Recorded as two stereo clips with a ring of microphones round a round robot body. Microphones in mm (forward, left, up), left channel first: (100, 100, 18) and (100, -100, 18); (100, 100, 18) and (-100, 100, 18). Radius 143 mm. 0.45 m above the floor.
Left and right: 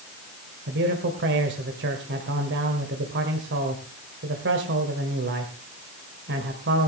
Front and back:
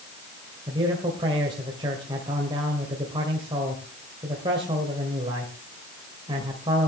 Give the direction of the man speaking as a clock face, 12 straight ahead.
4 o'clock.